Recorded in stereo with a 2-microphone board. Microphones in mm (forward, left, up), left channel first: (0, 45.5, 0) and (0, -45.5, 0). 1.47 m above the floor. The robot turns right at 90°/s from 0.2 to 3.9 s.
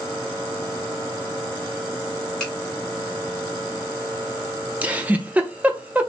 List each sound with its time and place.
2.4 s a finger snap: 5° left (ahead or behind), 2.0 m; by 2.5 s 20° left (ahead or behind), 2.0 m
4.8 s a giggle: 15° right (ahead or behind), 0.6 m